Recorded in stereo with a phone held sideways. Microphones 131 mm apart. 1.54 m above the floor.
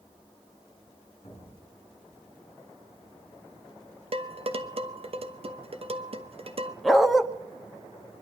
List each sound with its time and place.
1.2 s an explosion: 45° left (ahead or behind), 4 m
4.1 s dishes clattering: 45° right (ahead or behind), 1.1 m
6.8 s a dog barking: centre (ahead or behind), 1.0 m